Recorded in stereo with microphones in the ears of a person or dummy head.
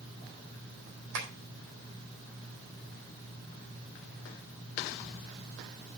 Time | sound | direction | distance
1.1 | tapping | 65° right (ahead or behind) | 4 m